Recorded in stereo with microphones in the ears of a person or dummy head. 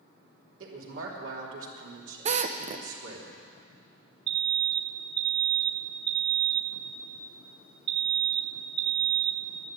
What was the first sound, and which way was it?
A woman speaking, 85° right.